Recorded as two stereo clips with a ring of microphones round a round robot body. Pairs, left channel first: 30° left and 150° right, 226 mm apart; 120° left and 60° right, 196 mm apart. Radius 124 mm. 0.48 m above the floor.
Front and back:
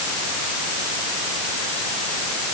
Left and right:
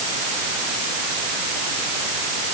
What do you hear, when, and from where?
Only background noise.